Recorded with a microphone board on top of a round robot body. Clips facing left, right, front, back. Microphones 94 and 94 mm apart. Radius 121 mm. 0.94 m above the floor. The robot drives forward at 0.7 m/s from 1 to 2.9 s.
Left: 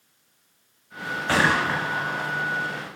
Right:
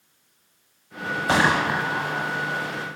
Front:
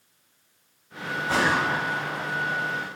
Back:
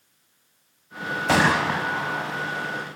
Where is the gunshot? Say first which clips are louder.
Right 1 dB, back 3 dB; 160° right, 1.4 m; by 2.6 s 170° right, 2 m.